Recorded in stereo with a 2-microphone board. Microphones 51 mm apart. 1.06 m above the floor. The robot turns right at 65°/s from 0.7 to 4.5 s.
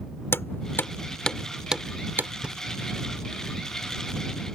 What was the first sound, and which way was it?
Hammering, 55° left (ahead or behind).